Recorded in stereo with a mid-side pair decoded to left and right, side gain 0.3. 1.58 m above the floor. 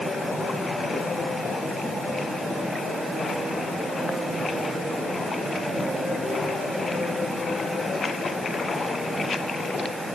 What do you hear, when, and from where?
Only background noise.